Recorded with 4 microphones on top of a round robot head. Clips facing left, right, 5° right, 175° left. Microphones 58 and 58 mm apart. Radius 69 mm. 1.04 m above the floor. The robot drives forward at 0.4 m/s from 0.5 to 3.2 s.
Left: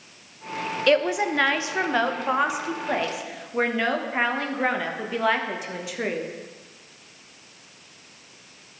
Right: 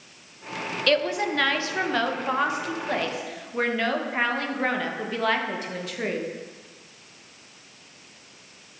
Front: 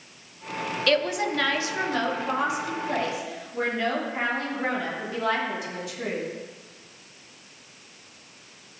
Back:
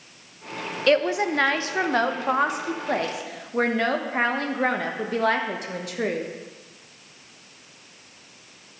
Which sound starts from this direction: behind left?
A woman speaking, at 0.9 s.